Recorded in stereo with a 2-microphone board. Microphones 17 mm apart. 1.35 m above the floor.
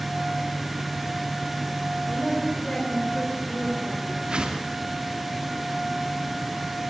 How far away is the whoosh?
About 3 m.